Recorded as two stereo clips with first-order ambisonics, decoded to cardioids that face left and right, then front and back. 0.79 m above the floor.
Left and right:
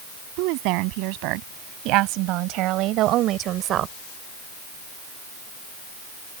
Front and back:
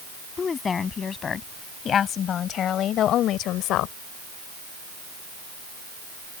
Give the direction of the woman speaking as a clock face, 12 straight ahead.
2 o'clock.